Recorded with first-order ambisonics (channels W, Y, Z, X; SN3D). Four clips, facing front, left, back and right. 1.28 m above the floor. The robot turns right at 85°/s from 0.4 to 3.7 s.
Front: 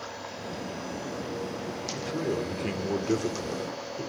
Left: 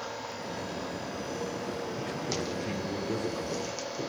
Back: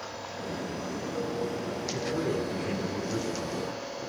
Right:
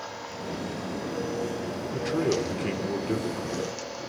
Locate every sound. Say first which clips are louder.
1.9 s a man speaking: right 7 dB, even; 115° right, 3 m; by 4.1 s 35° left, 3 m